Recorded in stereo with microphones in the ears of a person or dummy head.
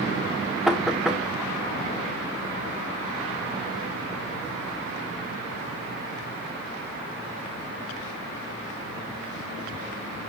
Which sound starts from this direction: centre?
Knocking, at 0.7 s.